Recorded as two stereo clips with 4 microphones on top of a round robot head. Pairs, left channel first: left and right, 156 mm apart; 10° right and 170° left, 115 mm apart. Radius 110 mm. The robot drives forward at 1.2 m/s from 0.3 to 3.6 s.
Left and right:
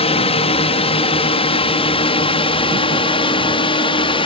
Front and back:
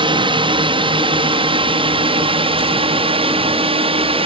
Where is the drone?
135° left; by 4.3 s 140° left.